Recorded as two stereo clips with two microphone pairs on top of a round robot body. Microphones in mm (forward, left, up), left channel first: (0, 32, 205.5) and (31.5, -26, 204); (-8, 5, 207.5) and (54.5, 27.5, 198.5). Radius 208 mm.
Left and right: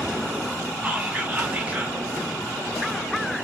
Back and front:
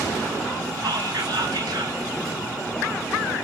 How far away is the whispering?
About 1.2 m.